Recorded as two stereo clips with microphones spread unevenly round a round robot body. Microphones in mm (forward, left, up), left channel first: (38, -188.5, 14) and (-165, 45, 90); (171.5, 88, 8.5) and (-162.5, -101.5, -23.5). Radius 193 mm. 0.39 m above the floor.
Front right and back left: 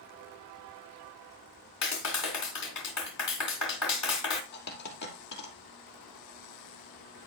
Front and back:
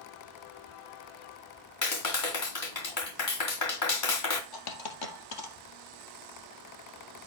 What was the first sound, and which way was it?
A clap, 15° right.